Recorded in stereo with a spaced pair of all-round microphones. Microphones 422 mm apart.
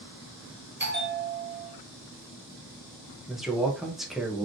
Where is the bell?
25° right (ahead or behind), 1.2 m.